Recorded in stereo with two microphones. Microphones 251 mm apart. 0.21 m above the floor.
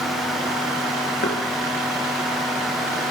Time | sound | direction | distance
1.2 | knocking | 50° left (ahead or behind) | 2.5 m